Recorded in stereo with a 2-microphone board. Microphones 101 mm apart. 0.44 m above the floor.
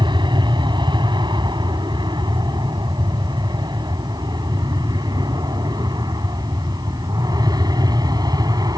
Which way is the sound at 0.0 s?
50° right (ahead or behind).